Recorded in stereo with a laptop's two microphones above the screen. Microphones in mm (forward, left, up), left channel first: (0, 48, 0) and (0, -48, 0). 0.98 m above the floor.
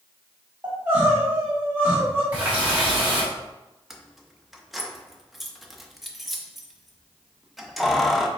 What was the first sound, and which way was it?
Crying, 20° right (ahead or behind).